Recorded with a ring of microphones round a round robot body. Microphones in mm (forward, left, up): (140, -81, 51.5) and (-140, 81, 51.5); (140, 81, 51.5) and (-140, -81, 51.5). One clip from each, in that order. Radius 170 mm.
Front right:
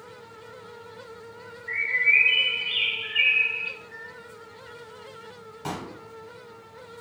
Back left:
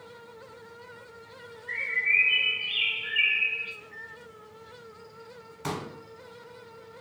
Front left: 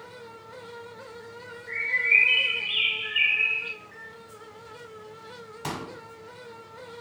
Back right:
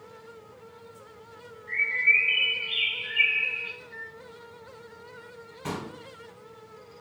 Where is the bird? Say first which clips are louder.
Front right 5 dB, even; 10° left, 1.9 m.